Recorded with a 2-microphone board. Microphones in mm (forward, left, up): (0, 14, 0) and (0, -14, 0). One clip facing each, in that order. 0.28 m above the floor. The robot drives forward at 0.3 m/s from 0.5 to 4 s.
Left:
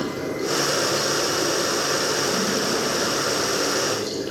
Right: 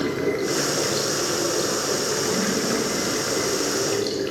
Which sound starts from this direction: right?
Running water, at 0.0 s.